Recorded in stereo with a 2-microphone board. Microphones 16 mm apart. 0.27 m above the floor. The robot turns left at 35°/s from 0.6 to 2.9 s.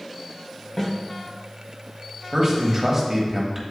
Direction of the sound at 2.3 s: 35° right (ahead or behind).